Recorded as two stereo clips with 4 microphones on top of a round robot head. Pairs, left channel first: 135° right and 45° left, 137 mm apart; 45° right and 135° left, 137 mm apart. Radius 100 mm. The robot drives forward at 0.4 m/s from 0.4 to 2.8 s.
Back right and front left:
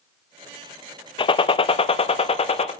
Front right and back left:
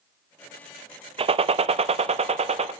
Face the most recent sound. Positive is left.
turn(degrees=180)